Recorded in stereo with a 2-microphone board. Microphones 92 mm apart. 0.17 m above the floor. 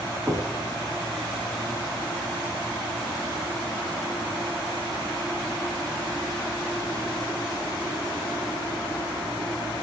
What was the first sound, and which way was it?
Knocking, 25° right (ahead or behind).